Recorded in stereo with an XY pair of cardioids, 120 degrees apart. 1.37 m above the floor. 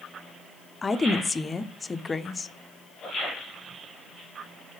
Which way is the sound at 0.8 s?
20° left.